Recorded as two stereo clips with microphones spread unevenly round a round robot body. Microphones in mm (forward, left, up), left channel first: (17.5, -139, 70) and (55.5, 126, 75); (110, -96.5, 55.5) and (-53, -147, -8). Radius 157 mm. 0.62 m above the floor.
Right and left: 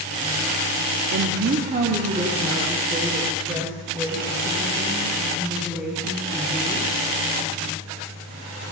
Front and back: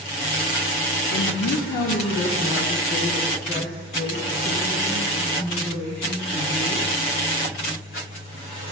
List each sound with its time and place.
1.1 s a woman speaking: 40° left, 1.0 m; by 6.9 s 5° right, 4.5 m